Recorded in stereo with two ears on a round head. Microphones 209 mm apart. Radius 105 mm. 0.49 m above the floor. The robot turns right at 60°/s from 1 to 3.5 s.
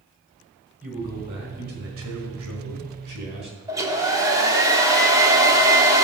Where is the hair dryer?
15° right (ahead or behind), 1.4 m.